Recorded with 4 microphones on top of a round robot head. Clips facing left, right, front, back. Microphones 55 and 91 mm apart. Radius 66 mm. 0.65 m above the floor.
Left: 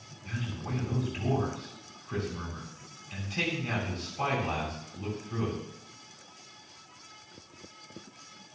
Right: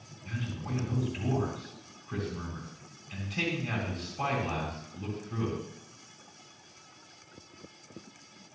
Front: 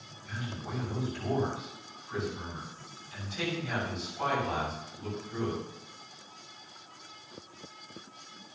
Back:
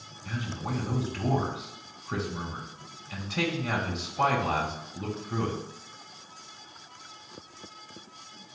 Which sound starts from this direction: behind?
A man speaking, at 0.2 s.